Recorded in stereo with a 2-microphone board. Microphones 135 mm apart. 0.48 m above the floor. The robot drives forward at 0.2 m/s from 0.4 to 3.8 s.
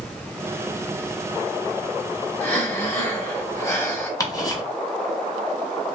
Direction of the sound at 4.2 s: 25° left (ahead or behind).